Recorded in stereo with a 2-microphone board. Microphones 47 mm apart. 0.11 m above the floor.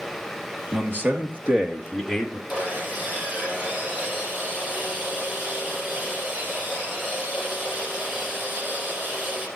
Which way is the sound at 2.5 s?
35° right (ahead or behind).